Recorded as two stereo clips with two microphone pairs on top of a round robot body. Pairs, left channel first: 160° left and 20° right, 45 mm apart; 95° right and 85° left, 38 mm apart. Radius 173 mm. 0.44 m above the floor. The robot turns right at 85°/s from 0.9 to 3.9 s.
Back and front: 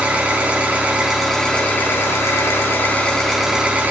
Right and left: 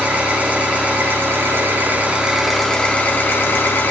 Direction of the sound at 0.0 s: 40° left.